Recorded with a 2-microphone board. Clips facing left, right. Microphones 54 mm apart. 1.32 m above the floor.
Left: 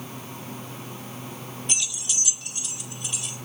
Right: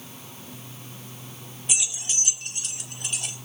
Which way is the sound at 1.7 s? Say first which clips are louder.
Right 2 dB; 5° right (ahead or behind).